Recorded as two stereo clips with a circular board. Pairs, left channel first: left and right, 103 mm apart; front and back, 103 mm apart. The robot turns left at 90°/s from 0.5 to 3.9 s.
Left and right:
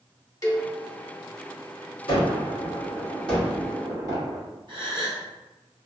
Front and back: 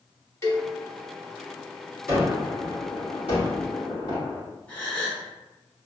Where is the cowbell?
50° left, 0.8 m; by 0.7 s 30° left, 0.8 m.